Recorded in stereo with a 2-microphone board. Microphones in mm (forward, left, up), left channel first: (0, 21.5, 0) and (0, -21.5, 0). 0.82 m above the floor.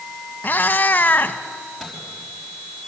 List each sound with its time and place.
0.4 s a cat meowing: 45° left (ahead or behind), 1.0 m
1.8 s a microwave: 5° right (ahead or behind), 5.5 m